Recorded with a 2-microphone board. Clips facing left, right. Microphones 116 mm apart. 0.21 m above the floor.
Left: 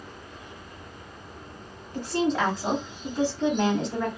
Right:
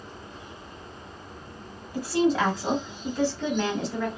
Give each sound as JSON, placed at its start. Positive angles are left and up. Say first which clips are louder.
{"t": 1.9, "sound": "a woman speaking", "louder": "right 2 dB", "side_deg": -10, "distance_m": 1.6}